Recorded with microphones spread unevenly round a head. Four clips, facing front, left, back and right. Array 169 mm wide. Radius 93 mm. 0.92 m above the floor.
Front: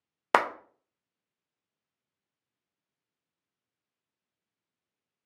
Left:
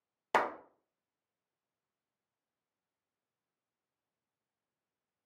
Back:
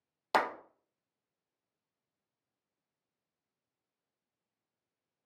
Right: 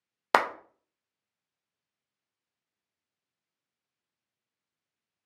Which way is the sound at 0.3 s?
35° right.